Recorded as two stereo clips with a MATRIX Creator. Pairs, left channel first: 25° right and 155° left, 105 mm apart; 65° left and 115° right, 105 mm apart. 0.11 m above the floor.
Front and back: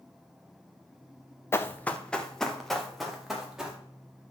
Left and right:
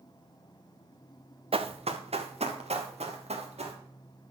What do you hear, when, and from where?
1.5 s running footsteps: 90° right, 1.0 m; by 3.8 s 115° right, 3 m